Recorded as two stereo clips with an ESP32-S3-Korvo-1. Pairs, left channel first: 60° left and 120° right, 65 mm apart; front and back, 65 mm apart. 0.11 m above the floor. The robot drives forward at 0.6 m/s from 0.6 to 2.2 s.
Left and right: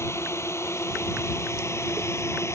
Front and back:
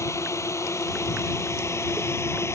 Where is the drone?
25° left; by 2.6 s 30° left.